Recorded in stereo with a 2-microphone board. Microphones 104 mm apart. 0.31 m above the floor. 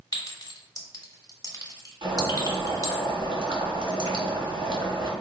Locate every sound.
0.1 s a clink: 35° left (ahead or behind), 1.0 m
2.0 s boiling: 55° right (ahead or behind), 1.4 m